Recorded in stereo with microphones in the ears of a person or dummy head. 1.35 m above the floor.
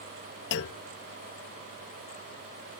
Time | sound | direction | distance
0.5 | a clunk | 60° left (ahead or behind) | ?